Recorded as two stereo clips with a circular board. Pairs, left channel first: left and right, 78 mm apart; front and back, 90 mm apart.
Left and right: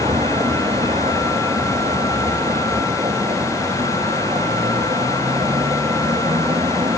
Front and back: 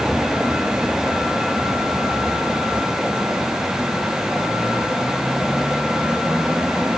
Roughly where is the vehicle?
Right.